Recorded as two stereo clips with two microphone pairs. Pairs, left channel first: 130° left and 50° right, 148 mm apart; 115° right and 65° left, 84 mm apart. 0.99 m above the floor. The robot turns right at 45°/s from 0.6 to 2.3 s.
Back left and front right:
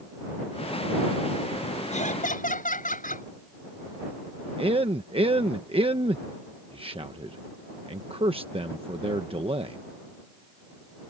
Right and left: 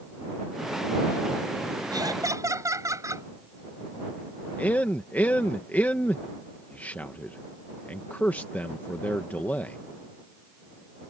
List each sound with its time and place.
1.9 s laughter: 95° left; by 3.3 s 110° left
4.6 s a man speaking: 55° right